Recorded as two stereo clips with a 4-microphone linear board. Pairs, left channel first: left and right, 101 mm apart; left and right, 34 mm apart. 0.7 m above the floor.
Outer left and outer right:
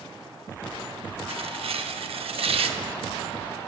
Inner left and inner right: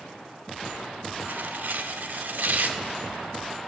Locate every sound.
1.3 s tearing paper: 70° right (ahead or behind), 0.6 m